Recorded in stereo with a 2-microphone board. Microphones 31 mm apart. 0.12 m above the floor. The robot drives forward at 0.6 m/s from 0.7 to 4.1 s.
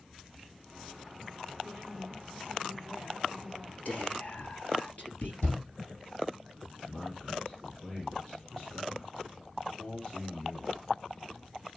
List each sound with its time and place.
1.6 s a woman speaking: 75° left (ahead or behind), 5 m; by 3.8 s 65° left (ahead or behind), 5.5 m
3.9 s whispering: 50° left (ahead or behind), 3 m
5.4 s a shout: 60° left (ahead or behind), 4.5 m
6.8 s a man speaking: 15° left (ahead or behind), 3.5 m